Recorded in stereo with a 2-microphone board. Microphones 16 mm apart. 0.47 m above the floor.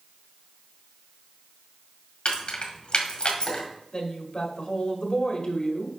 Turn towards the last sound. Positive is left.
turn(degrees=50)  # may be behind; listen again after turning